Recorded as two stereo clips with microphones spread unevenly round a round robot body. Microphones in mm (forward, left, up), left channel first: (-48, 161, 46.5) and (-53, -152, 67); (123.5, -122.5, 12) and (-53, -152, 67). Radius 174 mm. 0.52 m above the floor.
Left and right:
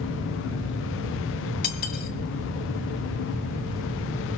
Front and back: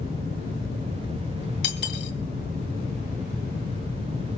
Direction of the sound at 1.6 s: 25° left.